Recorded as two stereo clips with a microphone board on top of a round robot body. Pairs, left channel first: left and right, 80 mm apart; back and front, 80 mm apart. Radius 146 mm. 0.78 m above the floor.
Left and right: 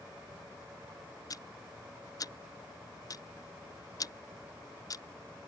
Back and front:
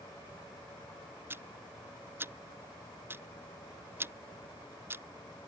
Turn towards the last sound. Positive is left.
turn(degrees=60)